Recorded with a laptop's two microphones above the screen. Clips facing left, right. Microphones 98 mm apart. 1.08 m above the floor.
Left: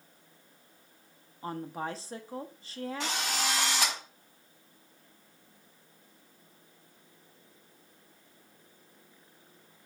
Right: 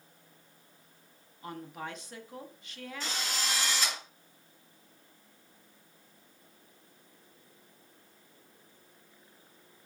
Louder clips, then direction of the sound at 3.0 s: Left 2 dB; 85° left.